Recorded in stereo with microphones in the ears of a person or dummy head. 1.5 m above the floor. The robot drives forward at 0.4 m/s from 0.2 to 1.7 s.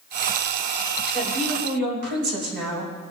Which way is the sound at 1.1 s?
50° right (ahead or behind).